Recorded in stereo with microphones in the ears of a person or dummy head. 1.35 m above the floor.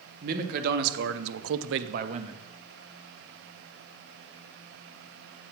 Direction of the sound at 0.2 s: 45° right (ahead or behind).